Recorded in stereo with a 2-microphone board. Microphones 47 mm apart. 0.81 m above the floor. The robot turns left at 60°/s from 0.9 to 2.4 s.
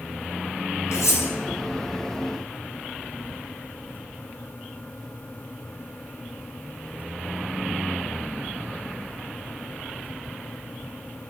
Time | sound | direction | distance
0.9 | cutlery clinking | 90° left | 4 m